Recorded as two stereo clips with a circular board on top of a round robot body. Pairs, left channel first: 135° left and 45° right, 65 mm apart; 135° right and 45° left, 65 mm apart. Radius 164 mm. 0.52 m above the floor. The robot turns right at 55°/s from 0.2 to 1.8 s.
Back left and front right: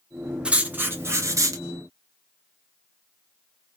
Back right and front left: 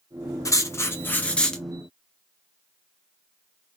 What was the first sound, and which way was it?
Writing, 115° right.